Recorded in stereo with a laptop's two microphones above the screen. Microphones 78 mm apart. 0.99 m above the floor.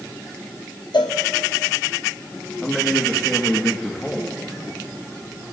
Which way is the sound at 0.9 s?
70° left (ahead or behind).